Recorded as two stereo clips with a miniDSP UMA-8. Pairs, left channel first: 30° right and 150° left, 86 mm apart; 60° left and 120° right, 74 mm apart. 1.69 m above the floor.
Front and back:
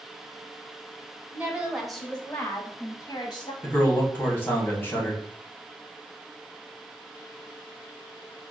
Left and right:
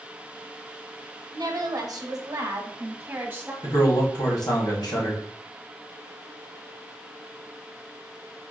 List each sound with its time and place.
1.3 s a woman speaking: 140° right, 1.2 m; by 3.5 s 60° right, 1.4 m
3.6 s a man speaking: 35° left, 1.5 m